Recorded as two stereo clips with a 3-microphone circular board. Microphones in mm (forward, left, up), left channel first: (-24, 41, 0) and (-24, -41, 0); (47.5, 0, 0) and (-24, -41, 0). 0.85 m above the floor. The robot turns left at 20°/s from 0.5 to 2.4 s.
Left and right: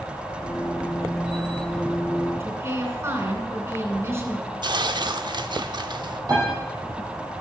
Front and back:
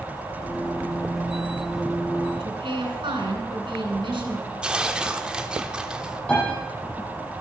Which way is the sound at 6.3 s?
50° right.